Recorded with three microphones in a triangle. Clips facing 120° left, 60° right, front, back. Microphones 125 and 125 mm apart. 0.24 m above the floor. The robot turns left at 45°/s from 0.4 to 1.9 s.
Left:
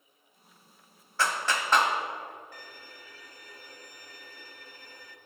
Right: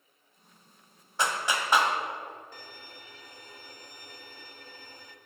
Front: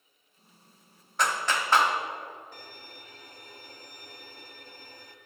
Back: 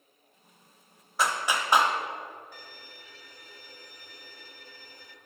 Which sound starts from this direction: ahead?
A violin, at 2.5 s.